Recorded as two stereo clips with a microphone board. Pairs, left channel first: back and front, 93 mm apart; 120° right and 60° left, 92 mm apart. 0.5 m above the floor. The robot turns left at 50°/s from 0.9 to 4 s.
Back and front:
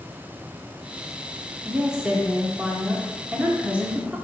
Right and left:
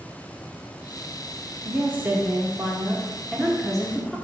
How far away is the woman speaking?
About 0.7 m.